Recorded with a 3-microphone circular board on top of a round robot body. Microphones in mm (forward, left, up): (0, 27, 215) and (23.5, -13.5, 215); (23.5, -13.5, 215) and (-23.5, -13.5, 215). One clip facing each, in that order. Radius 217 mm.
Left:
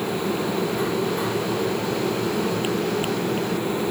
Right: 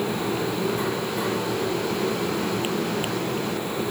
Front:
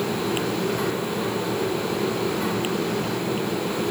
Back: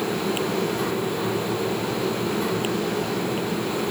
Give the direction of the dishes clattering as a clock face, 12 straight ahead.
No dishes clattering in this recording.